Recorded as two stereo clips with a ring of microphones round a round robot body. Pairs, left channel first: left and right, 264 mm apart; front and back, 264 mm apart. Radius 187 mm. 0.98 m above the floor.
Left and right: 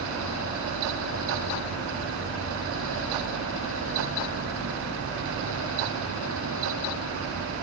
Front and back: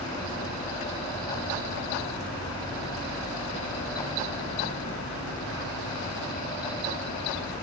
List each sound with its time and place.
Only background noise.